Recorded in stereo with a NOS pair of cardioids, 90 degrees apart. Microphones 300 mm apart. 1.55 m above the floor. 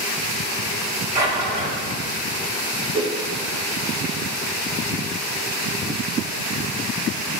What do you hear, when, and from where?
1.1 s a drawer: 65° right, 2.0 m
2.9 s a whoosh: 60° right, 1.2 m